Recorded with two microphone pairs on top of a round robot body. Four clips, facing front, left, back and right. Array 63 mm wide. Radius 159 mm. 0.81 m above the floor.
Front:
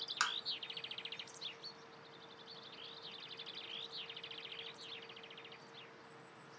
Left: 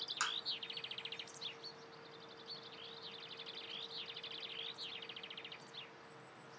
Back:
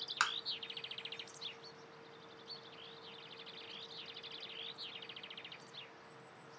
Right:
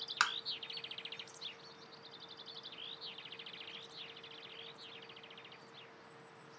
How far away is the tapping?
About 0.6 m.